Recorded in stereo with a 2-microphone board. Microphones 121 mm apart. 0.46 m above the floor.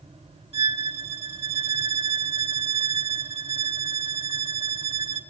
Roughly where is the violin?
Right.